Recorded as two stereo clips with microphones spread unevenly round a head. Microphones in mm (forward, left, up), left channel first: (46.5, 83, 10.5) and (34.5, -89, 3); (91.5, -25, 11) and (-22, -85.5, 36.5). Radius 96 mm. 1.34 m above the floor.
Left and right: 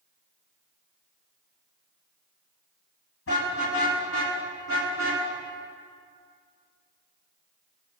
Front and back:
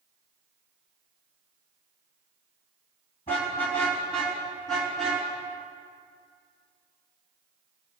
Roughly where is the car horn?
Left.